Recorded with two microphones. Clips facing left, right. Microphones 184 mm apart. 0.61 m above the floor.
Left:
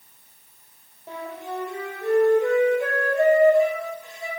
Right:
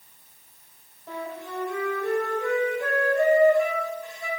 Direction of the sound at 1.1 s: 20° left (ahead or behind).